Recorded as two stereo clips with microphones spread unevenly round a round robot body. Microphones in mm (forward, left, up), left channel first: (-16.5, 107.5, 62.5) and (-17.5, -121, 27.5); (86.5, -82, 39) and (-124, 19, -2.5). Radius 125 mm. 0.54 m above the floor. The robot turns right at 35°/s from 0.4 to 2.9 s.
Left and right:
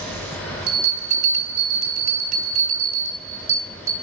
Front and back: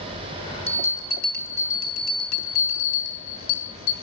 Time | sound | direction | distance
0.7 | a bell | 95° right | 1.9 m